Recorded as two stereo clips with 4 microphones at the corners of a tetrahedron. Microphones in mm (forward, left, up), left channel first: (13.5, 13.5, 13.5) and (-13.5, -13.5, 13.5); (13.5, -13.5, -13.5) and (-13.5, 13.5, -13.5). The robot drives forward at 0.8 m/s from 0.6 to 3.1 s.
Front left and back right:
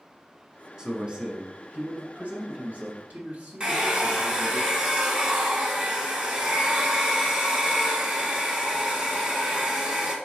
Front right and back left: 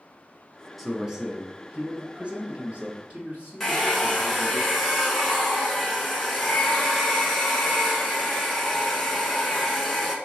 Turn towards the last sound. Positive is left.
turn(degrees=-125)